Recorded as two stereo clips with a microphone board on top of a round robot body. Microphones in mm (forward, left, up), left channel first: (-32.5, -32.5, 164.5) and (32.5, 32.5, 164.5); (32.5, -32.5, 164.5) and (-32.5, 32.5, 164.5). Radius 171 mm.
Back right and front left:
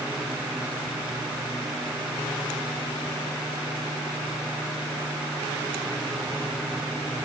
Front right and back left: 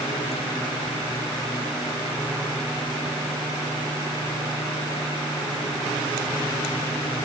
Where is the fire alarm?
I don't hear a fire alarm.